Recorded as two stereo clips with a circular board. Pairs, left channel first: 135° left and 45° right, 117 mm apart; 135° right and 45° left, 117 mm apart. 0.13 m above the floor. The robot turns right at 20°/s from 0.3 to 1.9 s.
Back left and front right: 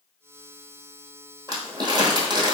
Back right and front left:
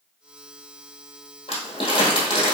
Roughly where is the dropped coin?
No dropped coin in this recording.